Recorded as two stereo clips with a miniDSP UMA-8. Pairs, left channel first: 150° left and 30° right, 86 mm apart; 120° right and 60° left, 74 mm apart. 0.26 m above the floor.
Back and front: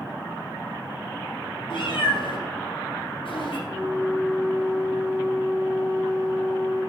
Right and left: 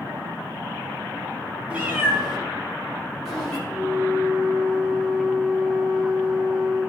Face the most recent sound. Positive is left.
turn(degrees=-5)